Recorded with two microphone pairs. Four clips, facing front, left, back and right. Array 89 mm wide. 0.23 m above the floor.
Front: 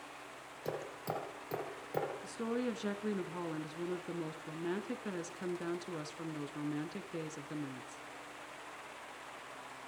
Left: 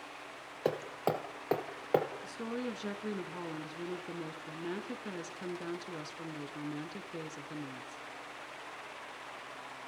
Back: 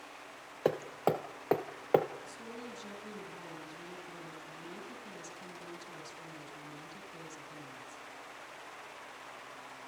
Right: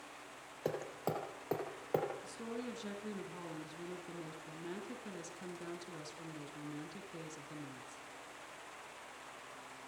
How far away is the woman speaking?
About 3 m.